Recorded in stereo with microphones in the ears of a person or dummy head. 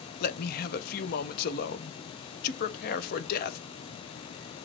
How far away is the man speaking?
About 0.6 m.